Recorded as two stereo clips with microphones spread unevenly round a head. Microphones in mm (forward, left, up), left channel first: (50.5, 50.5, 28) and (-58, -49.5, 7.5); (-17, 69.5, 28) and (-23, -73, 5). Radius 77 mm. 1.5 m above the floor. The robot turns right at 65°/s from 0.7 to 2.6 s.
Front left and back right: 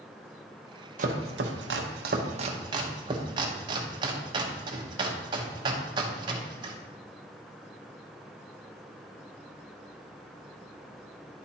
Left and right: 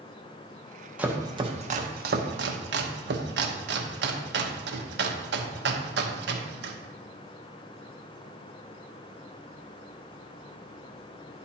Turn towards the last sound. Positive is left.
turn(degrees=-75)